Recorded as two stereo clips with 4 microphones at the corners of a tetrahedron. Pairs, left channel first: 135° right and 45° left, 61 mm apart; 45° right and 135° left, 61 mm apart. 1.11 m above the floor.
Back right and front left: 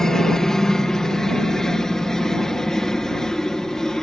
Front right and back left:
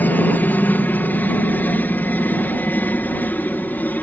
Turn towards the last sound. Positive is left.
turn(degrees=-60)